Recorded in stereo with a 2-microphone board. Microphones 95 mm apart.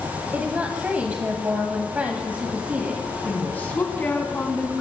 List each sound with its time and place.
0.3 s a woman speaking: 20° right (ahead or behind), 1.5 m
3.2 s a woman speaking: 20° left (ahead or behind), 2.5 m